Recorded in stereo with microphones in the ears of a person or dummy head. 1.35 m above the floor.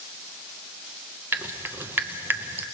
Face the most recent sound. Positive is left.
turn(degrees=-10)  # may be behind; listen again after turning